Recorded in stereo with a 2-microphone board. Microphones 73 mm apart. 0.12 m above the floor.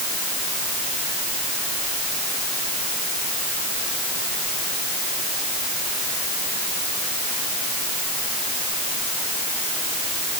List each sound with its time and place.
Only background noise.